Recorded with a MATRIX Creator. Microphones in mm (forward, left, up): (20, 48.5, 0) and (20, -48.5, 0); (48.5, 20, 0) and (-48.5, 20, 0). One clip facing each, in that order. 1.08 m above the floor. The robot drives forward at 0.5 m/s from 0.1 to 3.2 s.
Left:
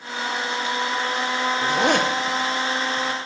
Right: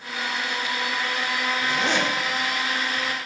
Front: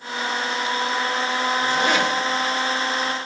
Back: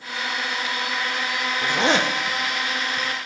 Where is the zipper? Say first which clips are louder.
Left 5 dB, back 2 dB; 105° left, 0.7 m; by 3.1 s 145° left, 1.1 m.